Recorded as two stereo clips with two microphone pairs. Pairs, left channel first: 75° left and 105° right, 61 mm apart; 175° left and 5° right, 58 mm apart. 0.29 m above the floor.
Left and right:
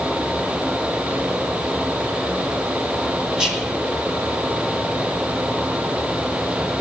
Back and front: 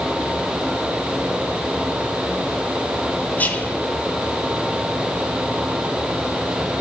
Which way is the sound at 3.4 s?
175° right.